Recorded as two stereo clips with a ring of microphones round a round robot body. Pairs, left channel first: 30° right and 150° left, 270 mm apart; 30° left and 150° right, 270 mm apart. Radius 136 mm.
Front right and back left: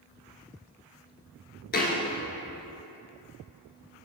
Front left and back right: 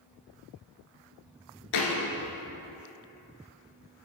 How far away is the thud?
About 1.3 m.